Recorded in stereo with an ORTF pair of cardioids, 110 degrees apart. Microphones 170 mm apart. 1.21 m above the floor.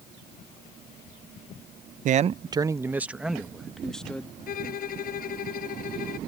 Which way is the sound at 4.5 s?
60° left.